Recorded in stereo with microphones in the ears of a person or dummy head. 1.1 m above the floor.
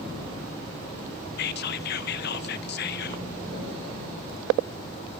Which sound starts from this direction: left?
Whispering, at 1.4 s.